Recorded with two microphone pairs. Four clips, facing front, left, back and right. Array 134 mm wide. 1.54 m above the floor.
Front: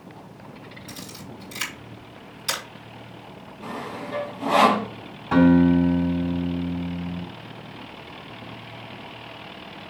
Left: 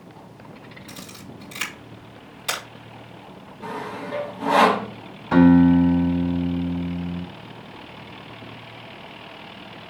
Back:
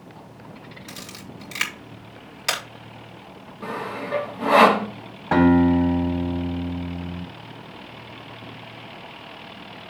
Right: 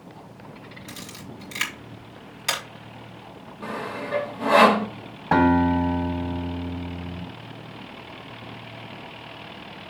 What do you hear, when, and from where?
0.9 s a camera shutter: 160° right, 3.5 m
3.6 s sawing: 145° right, 2.5 m
5.3 s a guitar: 120° right, 6 m